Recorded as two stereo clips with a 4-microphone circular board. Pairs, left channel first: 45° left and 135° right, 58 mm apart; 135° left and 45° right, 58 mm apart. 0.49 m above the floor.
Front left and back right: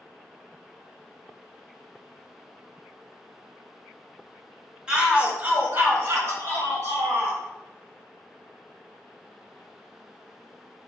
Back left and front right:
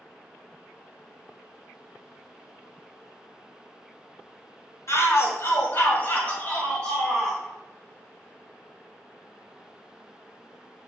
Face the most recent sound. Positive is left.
turn(degrees=-140)